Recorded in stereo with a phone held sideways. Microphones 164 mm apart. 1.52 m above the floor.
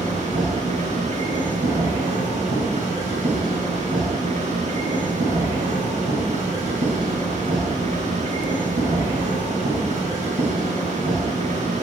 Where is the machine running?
45° right (ahead or behind), 7.5 m.